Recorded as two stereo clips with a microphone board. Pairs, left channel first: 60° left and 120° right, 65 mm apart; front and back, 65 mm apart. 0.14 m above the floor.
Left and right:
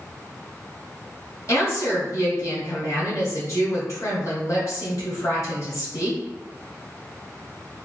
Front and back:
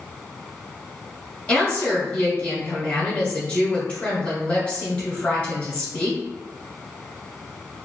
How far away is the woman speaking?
About 1.9 m.